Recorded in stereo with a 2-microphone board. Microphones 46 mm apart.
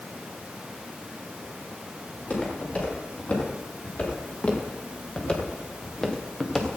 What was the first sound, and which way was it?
Footsteps, 40° left (ahead or behind).